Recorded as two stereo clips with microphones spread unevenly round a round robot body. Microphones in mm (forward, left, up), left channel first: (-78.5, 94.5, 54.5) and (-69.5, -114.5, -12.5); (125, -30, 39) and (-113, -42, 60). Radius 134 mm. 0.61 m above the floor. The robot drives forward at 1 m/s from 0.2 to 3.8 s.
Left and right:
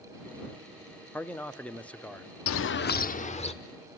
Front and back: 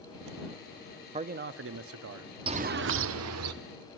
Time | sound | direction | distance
1.1 | a man speaking | 145° right | 0.7 m
2.5 | a bird | 110° left | 0.6 m